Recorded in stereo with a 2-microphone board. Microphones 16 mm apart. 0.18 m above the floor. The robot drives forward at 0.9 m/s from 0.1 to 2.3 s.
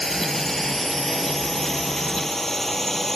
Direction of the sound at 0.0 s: 20° left (ahead or behind).